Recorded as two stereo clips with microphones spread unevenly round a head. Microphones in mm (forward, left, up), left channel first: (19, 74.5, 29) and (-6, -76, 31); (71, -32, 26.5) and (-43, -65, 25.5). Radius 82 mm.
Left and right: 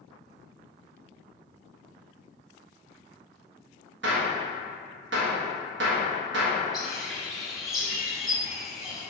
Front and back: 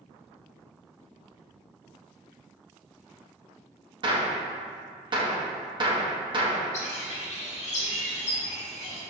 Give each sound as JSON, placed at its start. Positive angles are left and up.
{"t": 4.0, "sound": "a gunshot", "azimuth_deg": -115, "distance_m": 1.6}
{"t": 6.7, "sound": "a bird", "azimuth_deg": -10, "distance_m": 2.0}